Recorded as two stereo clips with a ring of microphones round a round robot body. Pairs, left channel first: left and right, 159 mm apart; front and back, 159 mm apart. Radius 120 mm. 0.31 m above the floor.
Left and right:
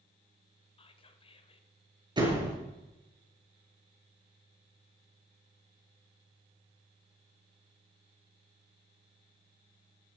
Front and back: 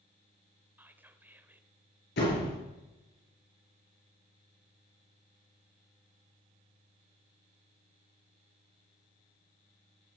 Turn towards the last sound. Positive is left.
turn(degrees=-30)